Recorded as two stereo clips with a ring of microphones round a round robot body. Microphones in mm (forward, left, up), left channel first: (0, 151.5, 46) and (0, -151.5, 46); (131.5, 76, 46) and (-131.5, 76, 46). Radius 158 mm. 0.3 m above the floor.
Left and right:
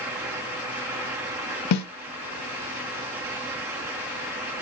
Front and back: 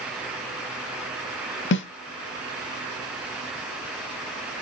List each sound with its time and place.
1.7 s a snare drum: 50° left, 0.5 m